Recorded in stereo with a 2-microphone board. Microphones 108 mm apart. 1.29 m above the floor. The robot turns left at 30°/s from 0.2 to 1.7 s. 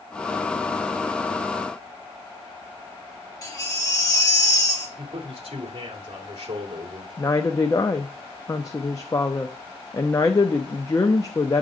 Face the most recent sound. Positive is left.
turn(degrees=30)  # may be behind; listen again after turning